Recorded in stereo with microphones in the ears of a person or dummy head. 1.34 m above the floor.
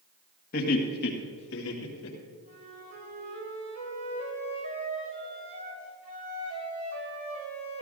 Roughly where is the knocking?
I don't hear knocking.